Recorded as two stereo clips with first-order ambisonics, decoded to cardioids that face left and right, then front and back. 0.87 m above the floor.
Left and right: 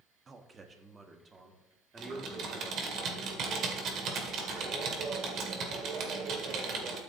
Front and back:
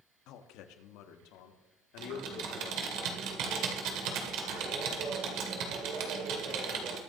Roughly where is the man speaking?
Ahead.